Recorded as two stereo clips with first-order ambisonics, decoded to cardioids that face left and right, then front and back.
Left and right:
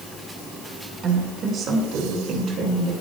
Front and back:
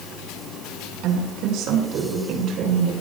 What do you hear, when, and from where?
1.0 s a woman speaking: 150° right, 5 m; by 2.9 s 135° right, 6 m